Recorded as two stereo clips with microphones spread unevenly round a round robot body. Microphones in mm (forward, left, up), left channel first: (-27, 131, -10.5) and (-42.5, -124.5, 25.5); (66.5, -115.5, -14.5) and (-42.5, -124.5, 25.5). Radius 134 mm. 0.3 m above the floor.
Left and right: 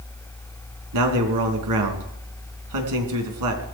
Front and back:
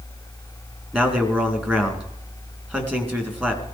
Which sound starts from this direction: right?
A man speaking, at 0.9 s.